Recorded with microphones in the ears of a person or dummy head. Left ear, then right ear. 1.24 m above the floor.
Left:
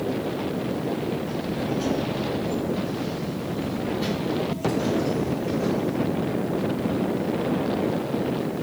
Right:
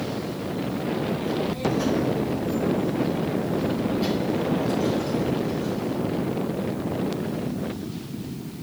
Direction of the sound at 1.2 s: 25° right (ahead or behind).